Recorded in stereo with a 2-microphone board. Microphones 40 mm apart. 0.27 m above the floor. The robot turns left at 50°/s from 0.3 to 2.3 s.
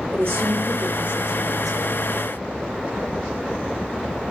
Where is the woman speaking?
105° right, 5.5 m; by 2.0 s 165° left, 5.5 m.